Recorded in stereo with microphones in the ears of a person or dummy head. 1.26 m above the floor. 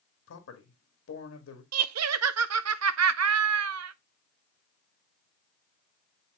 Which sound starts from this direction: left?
A man speaking, at 0.3 s.